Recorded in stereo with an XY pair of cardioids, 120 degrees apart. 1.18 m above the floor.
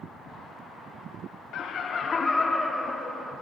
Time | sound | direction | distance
1.5 | laughter | 65° left | 0.7 m